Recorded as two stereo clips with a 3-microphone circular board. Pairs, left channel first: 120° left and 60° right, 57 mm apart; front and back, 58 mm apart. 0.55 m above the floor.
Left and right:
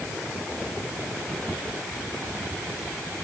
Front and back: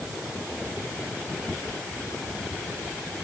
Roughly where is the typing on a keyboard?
No typing on a keyboard in this recording.